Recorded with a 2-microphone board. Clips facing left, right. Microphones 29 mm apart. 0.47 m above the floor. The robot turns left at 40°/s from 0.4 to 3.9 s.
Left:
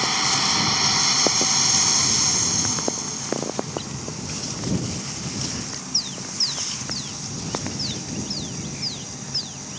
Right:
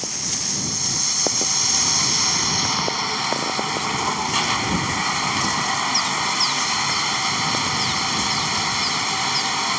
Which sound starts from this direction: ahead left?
Running water, at 0.0 s.